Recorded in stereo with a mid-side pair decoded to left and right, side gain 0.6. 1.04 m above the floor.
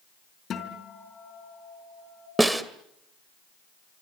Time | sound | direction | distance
0.5 | a guitar | 45° left | 4 m
2.4 | a snare drum | 10° right | 1.9 m